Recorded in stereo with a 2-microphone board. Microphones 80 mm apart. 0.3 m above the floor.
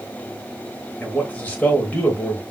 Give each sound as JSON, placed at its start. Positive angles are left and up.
{"t": 1.0, "sound": "a man speaking", "side_deg": 20, "distance_m": 1.0}